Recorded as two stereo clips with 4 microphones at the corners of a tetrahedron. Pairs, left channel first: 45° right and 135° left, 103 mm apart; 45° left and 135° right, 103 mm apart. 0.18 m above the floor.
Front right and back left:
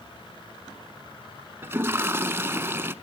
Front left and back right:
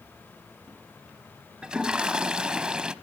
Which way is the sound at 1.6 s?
155° left.